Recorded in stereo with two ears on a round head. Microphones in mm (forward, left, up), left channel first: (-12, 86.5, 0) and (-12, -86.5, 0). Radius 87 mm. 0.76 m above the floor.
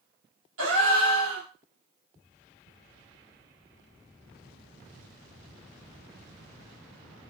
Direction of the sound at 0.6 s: 80° right.